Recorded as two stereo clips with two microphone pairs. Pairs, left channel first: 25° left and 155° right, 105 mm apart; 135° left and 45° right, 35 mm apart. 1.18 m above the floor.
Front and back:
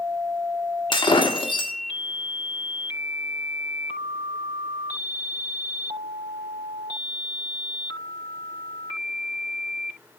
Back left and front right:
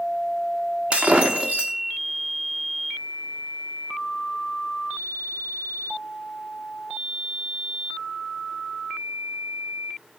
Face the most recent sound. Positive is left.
turn(degrees=0)